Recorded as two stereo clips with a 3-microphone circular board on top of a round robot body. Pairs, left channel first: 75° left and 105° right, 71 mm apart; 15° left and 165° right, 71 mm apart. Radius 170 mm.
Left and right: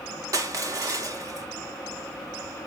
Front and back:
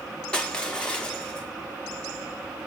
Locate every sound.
0.3 s crushing: 60° right, 0.5 m